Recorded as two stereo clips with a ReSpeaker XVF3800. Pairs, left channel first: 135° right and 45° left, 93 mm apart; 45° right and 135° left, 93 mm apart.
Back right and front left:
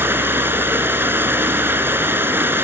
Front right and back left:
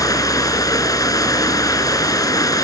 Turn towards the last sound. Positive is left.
turn(degrees=-15)